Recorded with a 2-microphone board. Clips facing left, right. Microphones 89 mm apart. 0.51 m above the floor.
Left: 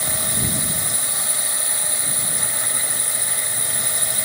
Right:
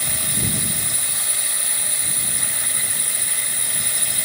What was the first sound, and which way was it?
A drone, 25° left (ahead or behind).